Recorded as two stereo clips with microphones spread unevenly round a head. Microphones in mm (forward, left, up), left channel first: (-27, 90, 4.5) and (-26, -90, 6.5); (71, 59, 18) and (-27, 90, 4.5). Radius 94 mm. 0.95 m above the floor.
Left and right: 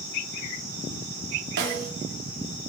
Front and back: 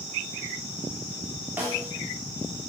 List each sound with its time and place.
1.6 s a snare drum: 120° right, 3 m